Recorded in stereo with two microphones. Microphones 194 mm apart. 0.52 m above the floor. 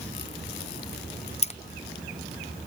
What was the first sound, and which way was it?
Keys jangling, 35° left (ahead or behind).